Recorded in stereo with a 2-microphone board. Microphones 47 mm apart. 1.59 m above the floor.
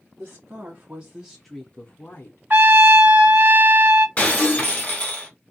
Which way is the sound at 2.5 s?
40° right (ahead or behind).